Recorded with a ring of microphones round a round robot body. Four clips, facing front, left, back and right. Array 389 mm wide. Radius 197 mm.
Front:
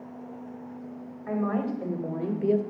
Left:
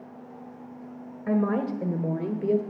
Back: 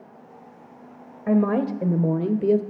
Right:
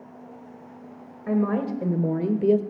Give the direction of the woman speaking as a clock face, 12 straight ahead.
6 o'clock.